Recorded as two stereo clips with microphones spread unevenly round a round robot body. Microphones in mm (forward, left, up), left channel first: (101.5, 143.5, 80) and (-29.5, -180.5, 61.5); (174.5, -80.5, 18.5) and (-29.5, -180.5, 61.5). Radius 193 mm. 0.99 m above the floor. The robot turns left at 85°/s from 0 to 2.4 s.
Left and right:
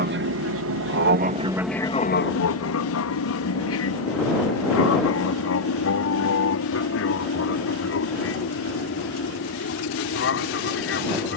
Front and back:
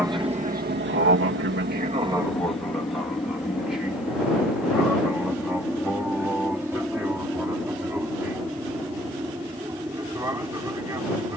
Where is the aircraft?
70° right; by 11.4 s 125° left.